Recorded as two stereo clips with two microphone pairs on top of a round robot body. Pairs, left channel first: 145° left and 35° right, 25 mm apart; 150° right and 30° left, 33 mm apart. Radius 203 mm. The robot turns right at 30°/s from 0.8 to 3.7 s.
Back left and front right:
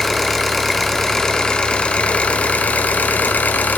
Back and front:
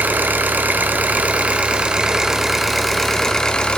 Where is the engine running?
60° left, 1.3 m; by 3.8 s 145° left, 1.3 m.